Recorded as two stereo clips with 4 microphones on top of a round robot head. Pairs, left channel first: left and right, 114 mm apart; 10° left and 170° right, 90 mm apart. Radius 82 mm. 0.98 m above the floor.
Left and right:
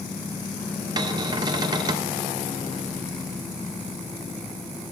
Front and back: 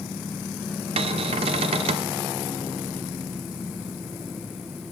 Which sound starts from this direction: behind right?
A cupboard door, at 1.0 s.